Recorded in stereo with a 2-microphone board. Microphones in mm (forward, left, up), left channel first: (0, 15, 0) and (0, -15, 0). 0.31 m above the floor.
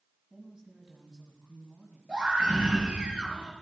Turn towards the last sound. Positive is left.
turn(degrees=-45)  # may be behind; listen again after turning